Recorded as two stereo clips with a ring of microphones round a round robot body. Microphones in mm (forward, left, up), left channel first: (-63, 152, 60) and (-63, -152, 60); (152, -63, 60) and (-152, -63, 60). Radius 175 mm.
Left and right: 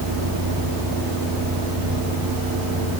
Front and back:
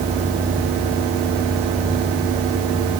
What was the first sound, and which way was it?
A vehicle, 110° right.